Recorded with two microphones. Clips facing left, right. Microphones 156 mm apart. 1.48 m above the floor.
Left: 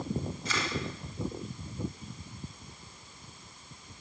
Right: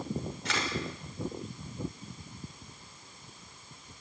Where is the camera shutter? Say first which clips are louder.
Right 3 dB; 70° right (ahead or behind), 5.5 m.